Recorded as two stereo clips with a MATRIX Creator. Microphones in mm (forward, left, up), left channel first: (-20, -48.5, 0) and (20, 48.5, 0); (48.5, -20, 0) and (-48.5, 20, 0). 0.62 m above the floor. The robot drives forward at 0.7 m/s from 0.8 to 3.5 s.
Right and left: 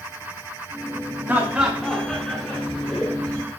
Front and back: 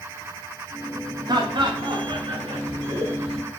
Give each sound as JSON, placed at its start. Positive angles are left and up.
{"t": 1.3, "sound": "laughter", "azimuth_deg": 135, "distance_m": 0.8}